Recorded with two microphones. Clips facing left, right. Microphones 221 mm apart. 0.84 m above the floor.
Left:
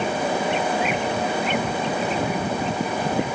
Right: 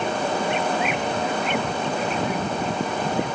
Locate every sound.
Only background noise.